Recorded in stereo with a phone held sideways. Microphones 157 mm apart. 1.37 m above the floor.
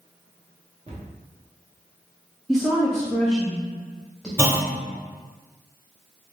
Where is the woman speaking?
Centre (ahead or behind), 0.7 m.